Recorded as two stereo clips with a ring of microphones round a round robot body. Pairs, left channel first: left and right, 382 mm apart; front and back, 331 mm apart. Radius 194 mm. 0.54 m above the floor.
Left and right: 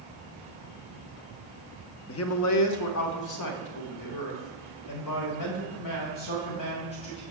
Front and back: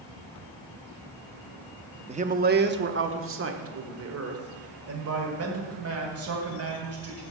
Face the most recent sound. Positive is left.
turn(degrees=135)